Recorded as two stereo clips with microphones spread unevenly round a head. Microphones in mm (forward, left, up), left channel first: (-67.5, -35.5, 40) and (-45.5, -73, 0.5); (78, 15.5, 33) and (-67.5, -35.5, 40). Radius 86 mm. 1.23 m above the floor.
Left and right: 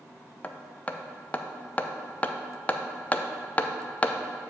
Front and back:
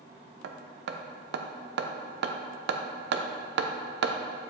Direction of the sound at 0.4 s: 170° right.